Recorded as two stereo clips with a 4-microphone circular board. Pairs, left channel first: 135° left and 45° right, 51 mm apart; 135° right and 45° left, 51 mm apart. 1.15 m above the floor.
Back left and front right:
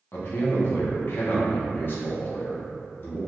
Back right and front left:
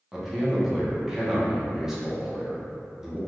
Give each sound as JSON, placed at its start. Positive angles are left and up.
{"t": 0.1, "sound": "a man speaking", "azimuth_deg": 120, "distance_m": 0.8}